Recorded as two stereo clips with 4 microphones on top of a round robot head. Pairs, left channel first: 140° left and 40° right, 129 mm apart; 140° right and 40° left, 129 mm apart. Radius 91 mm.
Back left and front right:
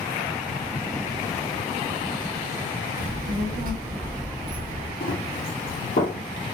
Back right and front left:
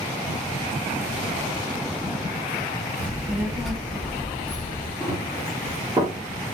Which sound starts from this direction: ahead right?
A child speaking, at 3.0 s.